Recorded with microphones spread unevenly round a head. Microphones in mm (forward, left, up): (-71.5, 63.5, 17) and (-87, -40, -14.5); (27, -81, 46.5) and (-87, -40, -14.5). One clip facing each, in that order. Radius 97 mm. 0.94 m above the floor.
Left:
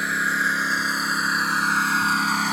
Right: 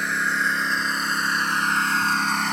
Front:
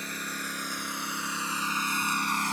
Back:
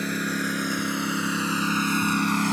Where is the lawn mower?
165° left; by 2.5 s 160° left.